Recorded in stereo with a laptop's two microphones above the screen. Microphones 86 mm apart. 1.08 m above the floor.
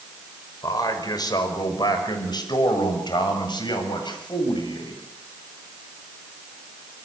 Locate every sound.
0.6 s a man speaking: 50° left (ahead or behind), 5.5 m; by 5.0 s 65° left (ahead or behind), 9 m